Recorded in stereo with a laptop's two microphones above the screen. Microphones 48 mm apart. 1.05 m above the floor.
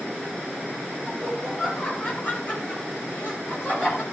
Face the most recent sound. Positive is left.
turn(degrees=55)  # may be behind; listen again after turning